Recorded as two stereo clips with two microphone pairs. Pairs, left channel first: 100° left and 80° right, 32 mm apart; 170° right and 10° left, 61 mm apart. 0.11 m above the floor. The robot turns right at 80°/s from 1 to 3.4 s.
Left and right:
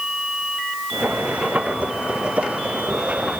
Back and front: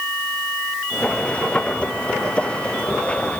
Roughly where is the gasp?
No gasp in this recording.